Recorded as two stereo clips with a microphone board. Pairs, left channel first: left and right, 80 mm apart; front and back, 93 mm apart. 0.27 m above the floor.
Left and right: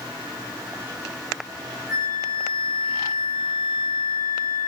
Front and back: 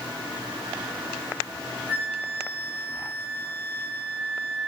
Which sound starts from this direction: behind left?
A flute, at 1.9 s.